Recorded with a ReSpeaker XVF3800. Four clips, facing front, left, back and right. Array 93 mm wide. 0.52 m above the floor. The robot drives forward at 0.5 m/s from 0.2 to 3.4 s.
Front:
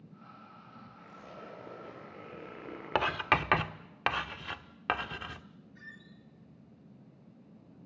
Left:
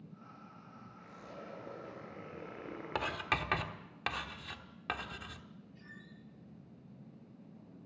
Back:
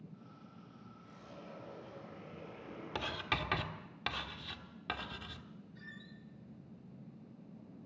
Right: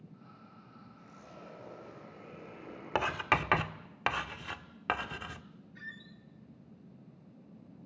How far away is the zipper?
About 8.5 m.